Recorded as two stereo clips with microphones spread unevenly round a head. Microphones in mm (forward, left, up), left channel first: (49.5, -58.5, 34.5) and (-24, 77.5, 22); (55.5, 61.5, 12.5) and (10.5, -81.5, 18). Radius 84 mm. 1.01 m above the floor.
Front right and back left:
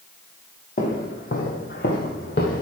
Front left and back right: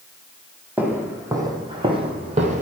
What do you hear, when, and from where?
0.8 s footsteps: 30° right, 1.8 m; by 2.6 s 85° right, 1.6 m